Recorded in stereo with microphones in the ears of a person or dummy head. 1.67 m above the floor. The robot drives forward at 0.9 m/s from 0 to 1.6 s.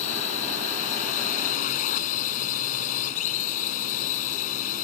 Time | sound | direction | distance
0.0 | a drone | 40° left (ahead or behind) | ?